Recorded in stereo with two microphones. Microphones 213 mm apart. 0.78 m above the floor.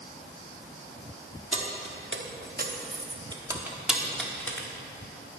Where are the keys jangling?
75° right (ahead or behind), 1.2 m; by 4.7 s 10° left (ahead or behind), 1.5 m.